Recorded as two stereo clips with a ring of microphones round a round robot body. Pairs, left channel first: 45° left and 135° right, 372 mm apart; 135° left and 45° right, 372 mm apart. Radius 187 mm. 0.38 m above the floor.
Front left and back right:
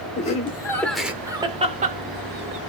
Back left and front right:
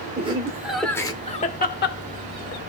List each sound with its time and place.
0.2 s laughter: 5° left, 1.0 m; by 2.6 s 175° left, 1.3 m